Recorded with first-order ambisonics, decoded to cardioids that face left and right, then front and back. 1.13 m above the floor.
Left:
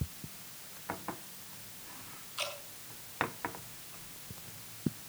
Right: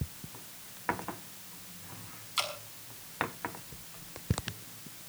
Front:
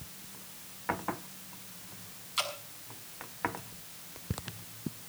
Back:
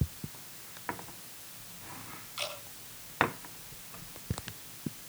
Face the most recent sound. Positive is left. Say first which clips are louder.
# right 5 dB, front 4 dB
turn(degrees=-60)